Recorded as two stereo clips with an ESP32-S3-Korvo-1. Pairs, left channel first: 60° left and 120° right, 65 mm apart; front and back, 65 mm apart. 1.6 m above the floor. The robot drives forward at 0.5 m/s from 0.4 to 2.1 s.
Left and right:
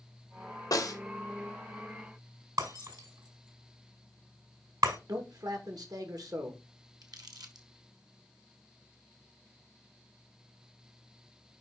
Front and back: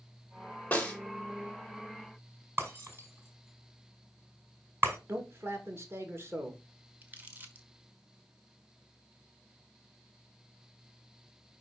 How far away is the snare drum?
About 2.5 m.